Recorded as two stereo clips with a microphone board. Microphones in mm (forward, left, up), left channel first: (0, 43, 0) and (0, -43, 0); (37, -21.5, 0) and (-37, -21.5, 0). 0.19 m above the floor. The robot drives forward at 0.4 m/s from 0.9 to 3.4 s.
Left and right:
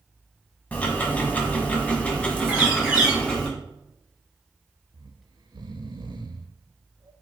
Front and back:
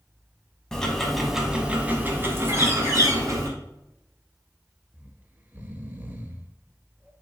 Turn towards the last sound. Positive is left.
turn(degrees=-115)